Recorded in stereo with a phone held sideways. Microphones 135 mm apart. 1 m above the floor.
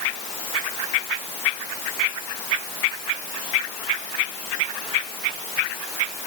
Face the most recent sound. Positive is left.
No sound to turn to.